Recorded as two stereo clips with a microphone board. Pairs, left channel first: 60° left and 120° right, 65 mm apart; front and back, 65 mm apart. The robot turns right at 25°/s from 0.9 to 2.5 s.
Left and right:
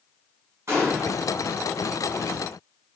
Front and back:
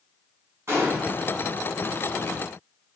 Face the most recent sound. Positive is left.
turn(degrees=-105)